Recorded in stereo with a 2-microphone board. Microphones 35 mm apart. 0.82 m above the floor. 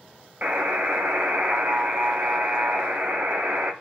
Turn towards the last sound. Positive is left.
turn(degrees=-50)  # may be behind; listen again after turning